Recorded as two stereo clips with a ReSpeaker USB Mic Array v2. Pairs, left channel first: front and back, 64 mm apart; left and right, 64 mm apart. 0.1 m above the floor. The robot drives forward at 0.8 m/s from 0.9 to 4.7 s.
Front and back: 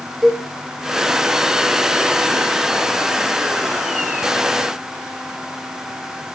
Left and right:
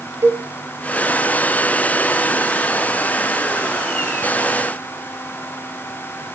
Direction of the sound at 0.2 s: 95° right.